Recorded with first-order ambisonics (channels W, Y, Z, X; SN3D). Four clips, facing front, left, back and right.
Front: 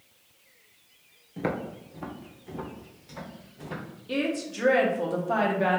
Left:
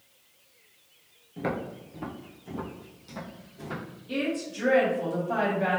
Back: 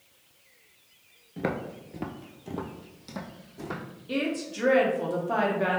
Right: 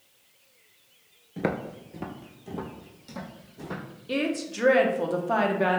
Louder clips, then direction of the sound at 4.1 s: Right 2 dB, front 1 dB; 85° right.